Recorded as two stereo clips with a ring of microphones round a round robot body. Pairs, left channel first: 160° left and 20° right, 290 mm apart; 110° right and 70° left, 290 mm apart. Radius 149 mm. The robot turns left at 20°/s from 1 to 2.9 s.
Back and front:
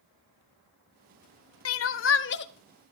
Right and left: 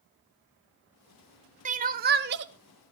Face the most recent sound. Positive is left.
turn(degrees=100)